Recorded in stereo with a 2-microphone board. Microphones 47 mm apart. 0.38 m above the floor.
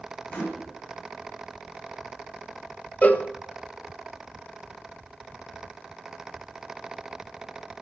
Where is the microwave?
30° left (ahead or behind), 3.5 m.